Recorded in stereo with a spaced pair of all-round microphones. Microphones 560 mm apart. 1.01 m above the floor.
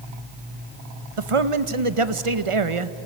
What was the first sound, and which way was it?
A man speaking, 70° right (ahead or behind).